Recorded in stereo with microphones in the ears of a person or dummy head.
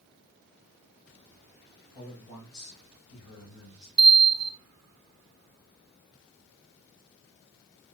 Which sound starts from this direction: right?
A bell, at 4.0 s.